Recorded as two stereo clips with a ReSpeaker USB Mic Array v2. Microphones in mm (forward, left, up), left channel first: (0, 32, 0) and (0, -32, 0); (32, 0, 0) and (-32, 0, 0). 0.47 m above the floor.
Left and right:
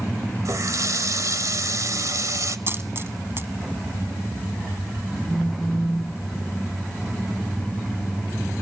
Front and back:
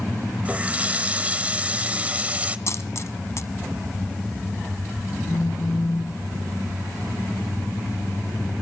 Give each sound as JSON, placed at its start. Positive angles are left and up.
{"t": 0.5, "sound": "a running tap", "azimuth_deg": -115, "distance_m": 1.3}
{"t": 2.7, "sound": "a dropped coin", "azimuth_deg": -40, "distance_m": 1.3}
{"t": 5.3, "sound": "a phone buzzing", "azimuth_deg": -5, "distance_m": 4.5}